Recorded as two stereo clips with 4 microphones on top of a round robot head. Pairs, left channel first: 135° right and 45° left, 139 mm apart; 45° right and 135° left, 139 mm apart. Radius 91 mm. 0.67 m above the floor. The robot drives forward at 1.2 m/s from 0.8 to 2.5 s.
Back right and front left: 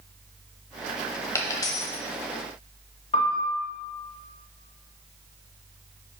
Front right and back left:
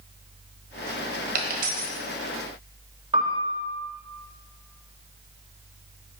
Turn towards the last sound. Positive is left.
turn(degrees=-175)